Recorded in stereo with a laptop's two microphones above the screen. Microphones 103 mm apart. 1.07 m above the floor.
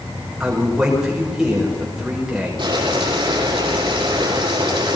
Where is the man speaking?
5° right (ahead or behind), 5.5 m.